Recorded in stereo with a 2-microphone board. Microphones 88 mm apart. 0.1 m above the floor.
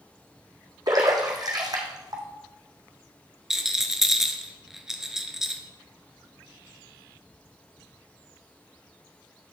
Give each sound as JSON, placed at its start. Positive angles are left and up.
{"t": 0.9, "sound": "a splash", "side_deg": -50, "distance_m": 1.5}
{"t": 3.5, "sound": "a rattle", "side_deg": -5, "distance_m": 0.7}